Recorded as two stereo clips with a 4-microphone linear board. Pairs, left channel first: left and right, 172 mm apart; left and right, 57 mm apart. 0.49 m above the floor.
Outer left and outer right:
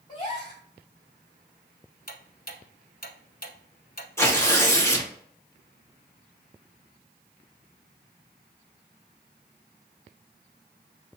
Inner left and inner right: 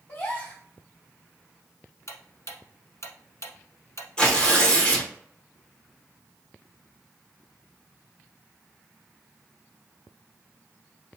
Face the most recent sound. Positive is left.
turn(degrees=15)  # may be behind; listen again after turning